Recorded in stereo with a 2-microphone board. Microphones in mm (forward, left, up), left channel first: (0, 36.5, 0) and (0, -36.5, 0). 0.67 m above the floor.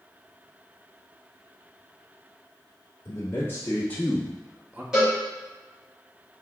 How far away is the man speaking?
About 1.2 m.